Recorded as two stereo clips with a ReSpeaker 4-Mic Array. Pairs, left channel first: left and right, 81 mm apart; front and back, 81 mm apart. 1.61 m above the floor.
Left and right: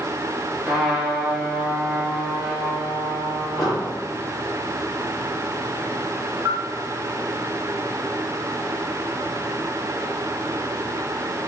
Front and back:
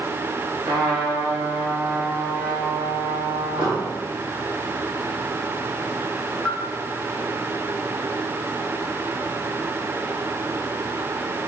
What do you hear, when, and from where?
0.7 s a trumpet: 170° right, 2 m
3.6 s an explosion: straight behind, 3.5 m
6.5 s a bell: 85° right, 2.5 m